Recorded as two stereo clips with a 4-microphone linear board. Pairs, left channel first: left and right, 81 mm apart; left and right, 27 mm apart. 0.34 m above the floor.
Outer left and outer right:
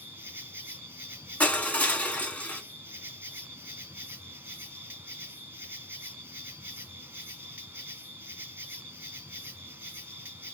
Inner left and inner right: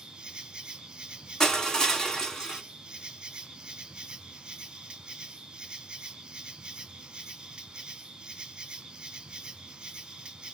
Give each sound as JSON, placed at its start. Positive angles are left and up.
{"t": 0.0, "sound": "an insect", "side_deg": -25, "distance_m": 0.8}
{"t": 1.4, "sound": "crushing", "side_deg": 20, "distance_m": 1.0}